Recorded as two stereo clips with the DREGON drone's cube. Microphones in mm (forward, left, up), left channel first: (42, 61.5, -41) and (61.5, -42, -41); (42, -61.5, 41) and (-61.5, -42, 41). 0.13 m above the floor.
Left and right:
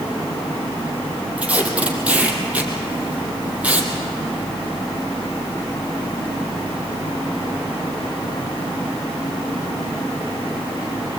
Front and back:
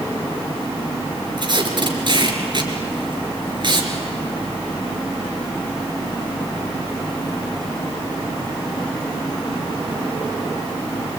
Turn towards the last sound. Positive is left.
turn(degrees=-155)